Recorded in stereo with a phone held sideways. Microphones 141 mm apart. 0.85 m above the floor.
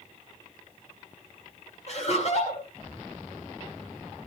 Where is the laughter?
50° left (ahead or behind), 6.5 m.